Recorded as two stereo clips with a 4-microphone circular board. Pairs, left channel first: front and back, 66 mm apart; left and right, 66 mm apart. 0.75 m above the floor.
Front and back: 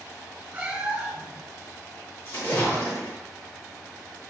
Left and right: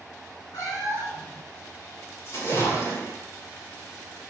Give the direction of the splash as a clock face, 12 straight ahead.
10 o'clock.